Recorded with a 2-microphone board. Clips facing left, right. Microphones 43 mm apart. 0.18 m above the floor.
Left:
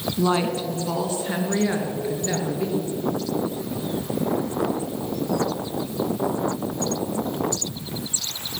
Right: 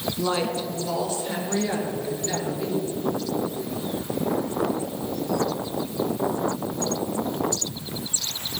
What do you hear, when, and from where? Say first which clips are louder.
0.2 s a woman speaking: left 4 dB; 20° left (ahead or behind), 1.4 m; by 2.9 s 30° left (ahead or behind), 3 m